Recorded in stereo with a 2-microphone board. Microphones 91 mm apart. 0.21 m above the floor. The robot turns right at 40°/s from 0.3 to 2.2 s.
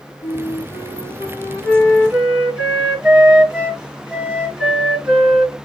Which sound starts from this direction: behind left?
A flute, at 0.2 s.